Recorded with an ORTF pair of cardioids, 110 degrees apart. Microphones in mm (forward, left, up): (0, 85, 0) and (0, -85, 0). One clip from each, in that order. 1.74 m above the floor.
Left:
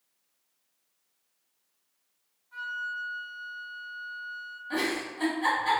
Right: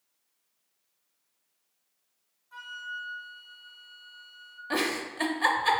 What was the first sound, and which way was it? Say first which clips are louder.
A flute: left 4 dB; 35° right.